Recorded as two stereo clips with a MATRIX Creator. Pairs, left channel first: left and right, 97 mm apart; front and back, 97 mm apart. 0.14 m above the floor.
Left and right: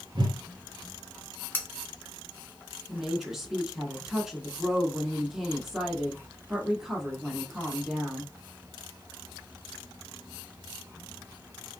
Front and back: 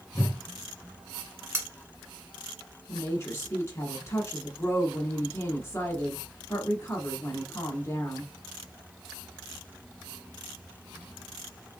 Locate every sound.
0.1 s a whoosh: 60° right, 0.6 m
1.5 s cutlery clinking: 145° left, 0.9 m
2.9 s a woman speaking: 10° right, 1.2 m